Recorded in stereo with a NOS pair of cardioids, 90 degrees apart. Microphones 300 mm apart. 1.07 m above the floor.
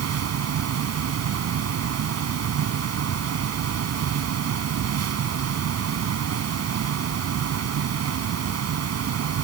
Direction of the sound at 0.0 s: 65° right.